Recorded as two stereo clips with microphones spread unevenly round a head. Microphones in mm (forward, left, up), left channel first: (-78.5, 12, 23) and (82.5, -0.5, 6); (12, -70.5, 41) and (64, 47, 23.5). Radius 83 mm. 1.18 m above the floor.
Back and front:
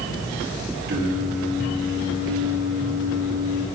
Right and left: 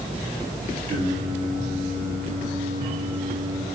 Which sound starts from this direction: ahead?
Singing, at 0.9 s.